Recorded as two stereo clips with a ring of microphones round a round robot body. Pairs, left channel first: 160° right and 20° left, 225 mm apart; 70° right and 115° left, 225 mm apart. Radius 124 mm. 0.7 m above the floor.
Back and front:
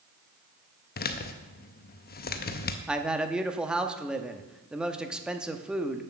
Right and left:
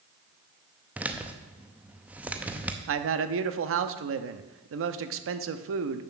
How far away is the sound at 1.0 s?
About 0.7 m.